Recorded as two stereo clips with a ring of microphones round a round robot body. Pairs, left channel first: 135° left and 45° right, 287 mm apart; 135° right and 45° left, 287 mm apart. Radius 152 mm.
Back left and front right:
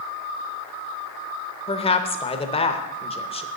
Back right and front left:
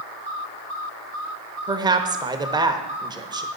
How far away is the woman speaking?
About 1.0 m.